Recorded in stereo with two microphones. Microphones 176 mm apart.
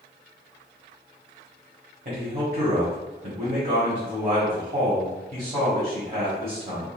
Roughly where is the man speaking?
Right.